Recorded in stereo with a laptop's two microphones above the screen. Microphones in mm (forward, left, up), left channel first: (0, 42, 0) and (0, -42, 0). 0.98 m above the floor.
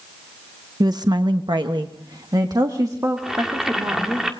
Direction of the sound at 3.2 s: 5° right (ahead or behind).